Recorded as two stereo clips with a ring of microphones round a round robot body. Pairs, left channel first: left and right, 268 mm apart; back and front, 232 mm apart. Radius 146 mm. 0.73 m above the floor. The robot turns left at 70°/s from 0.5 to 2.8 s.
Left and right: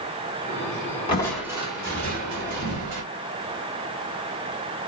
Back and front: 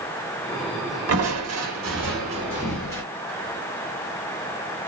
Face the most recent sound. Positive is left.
turn(degrees=-100)